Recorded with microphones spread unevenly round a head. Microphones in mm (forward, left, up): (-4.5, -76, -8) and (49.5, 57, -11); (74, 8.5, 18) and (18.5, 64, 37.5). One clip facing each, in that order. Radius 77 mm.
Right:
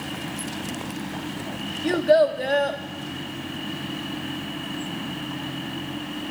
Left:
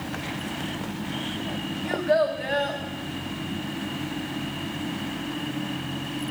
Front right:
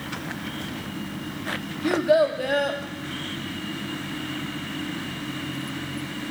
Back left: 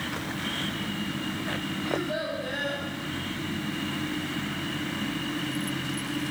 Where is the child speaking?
70° right, 1.2 m.